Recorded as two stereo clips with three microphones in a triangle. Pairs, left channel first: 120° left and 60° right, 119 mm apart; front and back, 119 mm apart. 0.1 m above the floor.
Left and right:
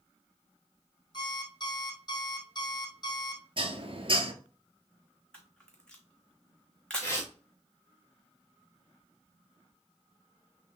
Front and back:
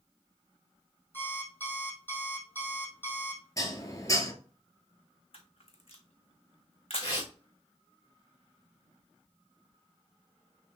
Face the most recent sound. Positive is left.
turn(degrees=55)